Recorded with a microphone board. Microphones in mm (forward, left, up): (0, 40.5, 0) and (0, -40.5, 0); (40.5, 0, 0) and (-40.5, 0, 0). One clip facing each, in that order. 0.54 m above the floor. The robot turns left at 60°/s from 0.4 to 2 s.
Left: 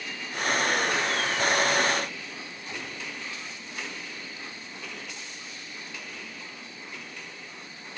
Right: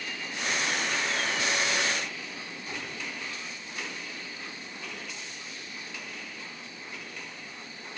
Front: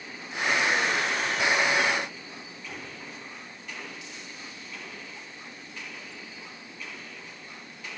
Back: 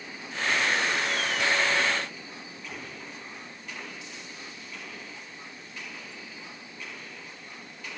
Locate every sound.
Only background noise.